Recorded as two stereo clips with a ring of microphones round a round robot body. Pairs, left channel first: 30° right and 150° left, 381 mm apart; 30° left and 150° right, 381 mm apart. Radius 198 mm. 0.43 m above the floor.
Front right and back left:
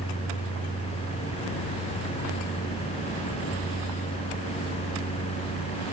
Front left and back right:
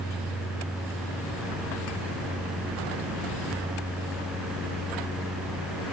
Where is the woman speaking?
I don't hear a woman speaking.